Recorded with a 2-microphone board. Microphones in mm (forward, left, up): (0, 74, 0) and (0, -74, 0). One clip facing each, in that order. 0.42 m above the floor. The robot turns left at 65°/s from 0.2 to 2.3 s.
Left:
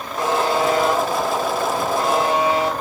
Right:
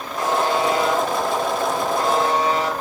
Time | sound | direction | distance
0.2 | a buzzer | 150° left | 1.1 m